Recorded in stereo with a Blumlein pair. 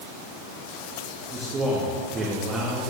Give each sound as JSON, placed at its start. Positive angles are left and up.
{"t": 1.3, "sound": "a man speaking", "azimuth_deg": -20, "distance_m": 2.0}